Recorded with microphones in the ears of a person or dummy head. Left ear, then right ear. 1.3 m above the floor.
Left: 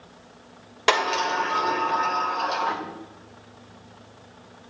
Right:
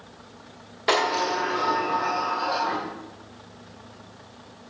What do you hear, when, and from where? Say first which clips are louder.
0.9 s a sliding door: left 1 dB; 55° left (ahead or behind), 2 m